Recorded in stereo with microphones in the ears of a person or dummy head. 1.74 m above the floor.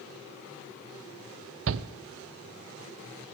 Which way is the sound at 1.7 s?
75° right (ahead or behind).